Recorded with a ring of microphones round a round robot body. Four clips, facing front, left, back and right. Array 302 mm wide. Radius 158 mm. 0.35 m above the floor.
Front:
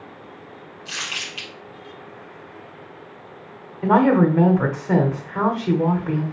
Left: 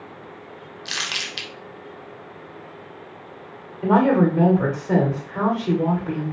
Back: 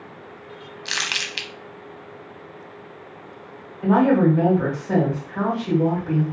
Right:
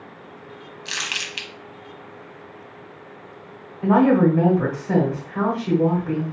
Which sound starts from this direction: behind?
Crumpling, at 0.8 s.